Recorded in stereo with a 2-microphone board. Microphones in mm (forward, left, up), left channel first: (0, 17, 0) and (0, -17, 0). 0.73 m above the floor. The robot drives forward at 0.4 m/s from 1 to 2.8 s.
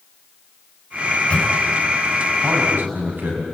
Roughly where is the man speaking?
Right.